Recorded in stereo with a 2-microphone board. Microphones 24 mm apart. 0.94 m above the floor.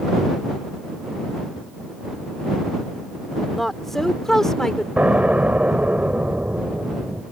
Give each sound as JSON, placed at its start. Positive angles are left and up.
{"t": 3.5, "sound": "a woman speaking", "side_deg": 10}
{"t": 5.0, "sound": "an explosion", "side_deg": -70}